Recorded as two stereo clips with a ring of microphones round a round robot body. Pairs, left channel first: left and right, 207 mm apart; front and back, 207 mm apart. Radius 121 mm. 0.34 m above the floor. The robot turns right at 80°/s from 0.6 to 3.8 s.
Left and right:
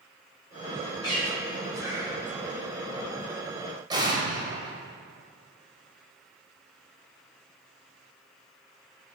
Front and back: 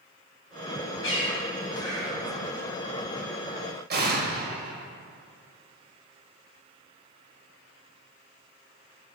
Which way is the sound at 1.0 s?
20° left.